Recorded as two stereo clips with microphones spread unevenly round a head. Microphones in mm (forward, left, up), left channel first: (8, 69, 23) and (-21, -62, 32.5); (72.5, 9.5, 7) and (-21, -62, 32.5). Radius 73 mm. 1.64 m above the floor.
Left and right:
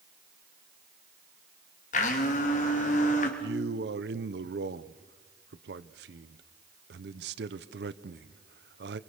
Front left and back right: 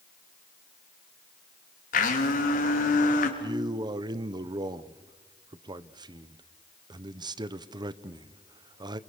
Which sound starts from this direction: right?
A man speaking, at 3.4 s.